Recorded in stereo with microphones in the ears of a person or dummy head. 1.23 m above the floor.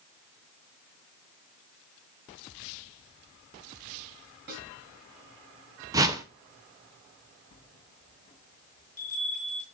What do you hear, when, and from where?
4.5 s a snare drum: 60° right (ahead or behind), 3.5 m
5.9 s a whoosh: 20° right (ahead or behind), 0.7 m
7.5 s a bell: 30° left (ahead or behind), 2 m